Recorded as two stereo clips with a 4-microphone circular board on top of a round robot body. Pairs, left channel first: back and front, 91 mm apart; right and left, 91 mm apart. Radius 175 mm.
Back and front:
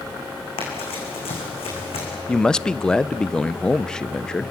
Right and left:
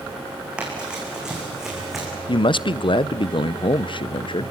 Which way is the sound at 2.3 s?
100° right.